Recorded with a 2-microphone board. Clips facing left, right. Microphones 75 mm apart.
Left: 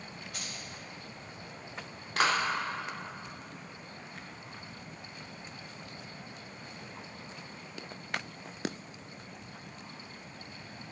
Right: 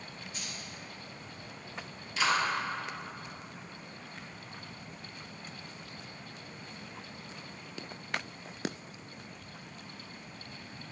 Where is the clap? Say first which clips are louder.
Left 1 dB; 65° left (ahead or behind), 3.5 m.